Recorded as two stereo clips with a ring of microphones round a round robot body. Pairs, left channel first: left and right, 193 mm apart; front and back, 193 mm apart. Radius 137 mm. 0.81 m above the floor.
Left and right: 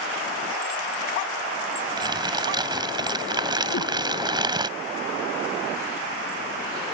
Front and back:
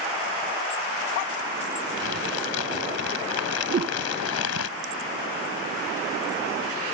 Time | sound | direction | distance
2.0 | crumpling | 20° right | ?
3.7 | a whoosh | 135° left | ?